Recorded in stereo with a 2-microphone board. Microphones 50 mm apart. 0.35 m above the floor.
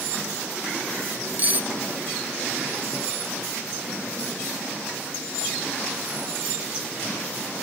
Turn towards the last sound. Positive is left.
turn(degrees=-35)  # may be behind; listen again after turning